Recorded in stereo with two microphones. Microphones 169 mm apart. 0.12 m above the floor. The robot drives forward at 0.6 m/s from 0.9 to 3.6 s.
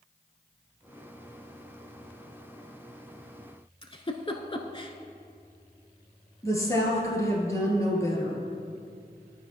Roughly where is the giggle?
Left.